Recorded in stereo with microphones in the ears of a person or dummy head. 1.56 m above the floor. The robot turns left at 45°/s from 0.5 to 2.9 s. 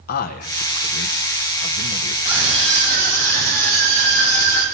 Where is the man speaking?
125° left, 0.9 m; by 2.1 s 50° left, 0.9 m.